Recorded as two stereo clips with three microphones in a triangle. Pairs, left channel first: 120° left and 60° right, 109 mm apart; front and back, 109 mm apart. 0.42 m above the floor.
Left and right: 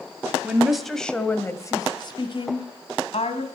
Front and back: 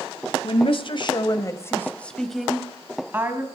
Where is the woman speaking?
20° left, 2 m; by 3.5 s 115° left, 3 m.